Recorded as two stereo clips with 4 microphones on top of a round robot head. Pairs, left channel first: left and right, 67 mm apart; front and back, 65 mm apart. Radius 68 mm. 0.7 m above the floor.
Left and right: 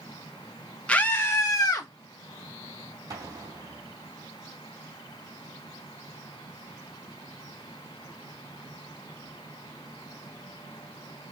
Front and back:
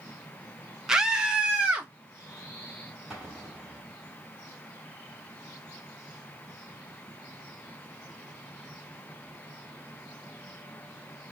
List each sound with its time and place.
0.9 s a scream: 115° left, 0.8 m; by 1.9 s 105° left, 1.2 m
3.1 s an explosion: 90° right, 2 m